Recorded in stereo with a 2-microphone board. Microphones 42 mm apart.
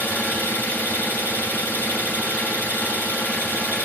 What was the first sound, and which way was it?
An engine running, 45° left (ahead or behind).